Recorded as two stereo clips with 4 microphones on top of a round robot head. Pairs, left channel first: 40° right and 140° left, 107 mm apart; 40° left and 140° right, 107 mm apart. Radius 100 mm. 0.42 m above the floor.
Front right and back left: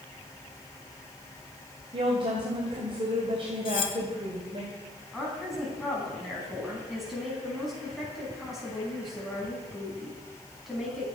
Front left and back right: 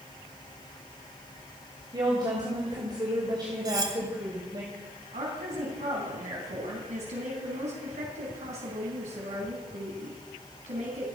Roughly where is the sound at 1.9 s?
Behind.